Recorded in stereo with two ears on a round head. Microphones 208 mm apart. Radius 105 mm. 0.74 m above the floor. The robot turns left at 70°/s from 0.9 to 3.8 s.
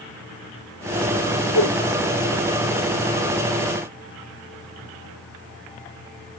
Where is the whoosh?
65° left (ahead or behind), 0.7 m; by 1.8 s 50° left (ahead or behind), 0.7 m.